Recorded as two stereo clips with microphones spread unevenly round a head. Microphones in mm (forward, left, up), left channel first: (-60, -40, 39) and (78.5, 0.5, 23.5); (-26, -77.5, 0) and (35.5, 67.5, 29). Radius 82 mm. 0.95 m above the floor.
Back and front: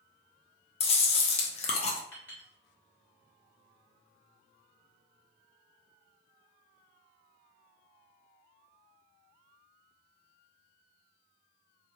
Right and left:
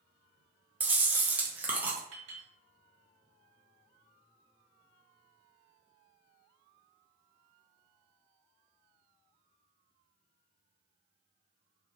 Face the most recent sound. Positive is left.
turn(degrees=115)